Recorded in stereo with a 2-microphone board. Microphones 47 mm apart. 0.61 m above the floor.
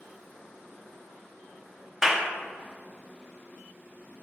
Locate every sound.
2.0 s a clap: 10° right (ahead or behind), 0.7 m